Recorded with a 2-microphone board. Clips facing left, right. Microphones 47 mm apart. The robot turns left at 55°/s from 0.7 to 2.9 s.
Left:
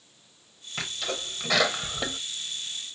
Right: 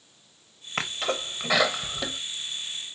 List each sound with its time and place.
0.8 s a sneeze: 45° right (ahead or behind), 0.9 m; by 2.2 s 20° left (ahead or behind), 0.9 m